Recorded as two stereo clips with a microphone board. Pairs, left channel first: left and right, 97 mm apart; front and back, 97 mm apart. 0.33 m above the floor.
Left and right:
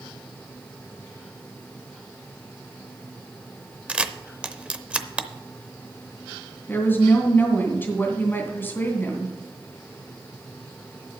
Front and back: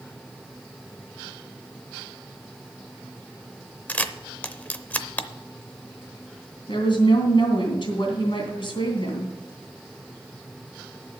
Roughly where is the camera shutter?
Ahead right.